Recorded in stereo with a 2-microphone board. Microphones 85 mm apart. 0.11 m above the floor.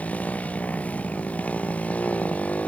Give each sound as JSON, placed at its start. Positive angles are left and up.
{"t": 0.0, "sound": "a motorcycle", "side_deg": 20}